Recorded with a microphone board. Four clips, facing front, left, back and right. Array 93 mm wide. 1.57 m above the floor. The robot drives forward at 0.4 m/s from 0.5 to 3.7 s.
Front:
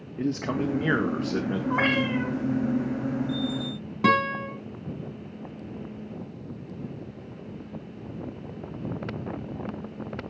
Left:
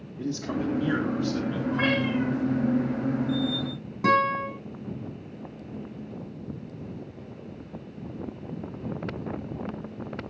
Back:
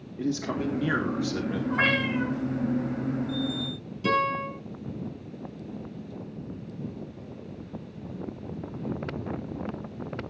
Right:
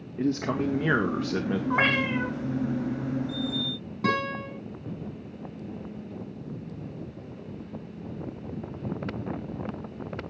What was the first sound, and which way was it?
A man speaking, 50° right.